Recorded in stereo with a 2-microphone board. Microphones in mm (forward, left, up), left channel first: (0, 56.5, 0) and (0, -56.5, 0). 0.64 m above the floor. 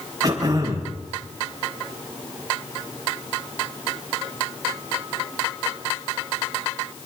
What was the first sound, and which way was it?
Throat clearing, 30° right (ahead or behind).